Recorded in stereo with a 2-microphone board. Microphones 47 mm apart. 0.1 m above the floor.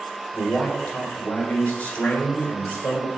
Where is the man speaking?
25° left (ahead or behind), 1.5 m.